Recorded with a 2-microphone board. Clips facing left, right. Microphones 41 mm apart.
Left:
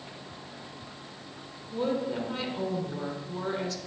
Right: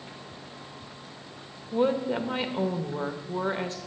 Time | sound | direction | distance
1.7 | a woman speaking | 40° right (ahead or behind) | 1.1 m